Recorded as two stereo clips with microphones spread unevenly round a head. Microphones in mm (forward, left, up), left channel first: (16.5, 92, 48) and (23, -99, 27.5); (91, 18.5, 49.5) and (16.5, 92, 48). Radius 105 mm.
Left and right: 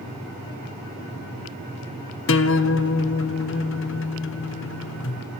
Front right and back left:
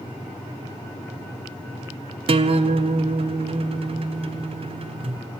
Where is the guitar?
110° left, 0.7 m.